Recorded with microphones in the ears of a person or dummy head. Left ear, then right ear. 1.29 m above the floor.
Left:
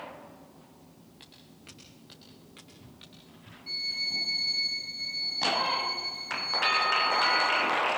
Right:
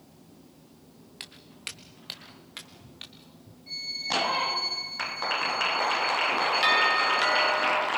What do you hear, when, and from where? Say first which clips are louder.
1.2 s footsteps: right 12 dB; 45° right (ahead or behind), 1.7 m; by 3.6 s centre (ahead or behind), 1.3 m
3.7 s a violin: even; 25° left (ahead or behind), 4 m
6.6 s a doorbell: right 2 dB; 15° right (ahead or behind), 4 m